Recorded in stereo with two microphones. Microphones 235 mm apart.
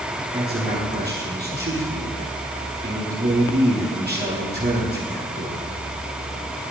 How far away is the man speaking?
About 9.5 m.